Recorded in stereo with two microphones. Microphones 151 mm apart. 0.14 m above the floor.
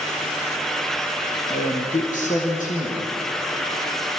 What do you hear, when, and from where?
1.5 s a man speaking: 65° left (ahead or behind), 4.5 m